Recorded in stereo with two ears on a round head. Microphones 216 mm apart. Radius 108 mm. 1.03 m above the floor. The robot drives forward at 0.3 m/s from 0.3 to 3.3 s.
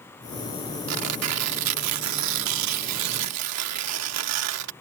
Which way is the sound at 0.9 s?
65° right (ahead or behind).